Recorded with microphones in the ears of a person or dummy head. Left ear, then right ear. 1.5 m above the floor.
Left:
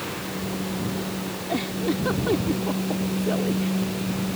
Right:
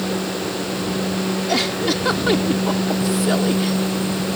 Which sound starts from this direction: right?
A giggle, at 1.5 s.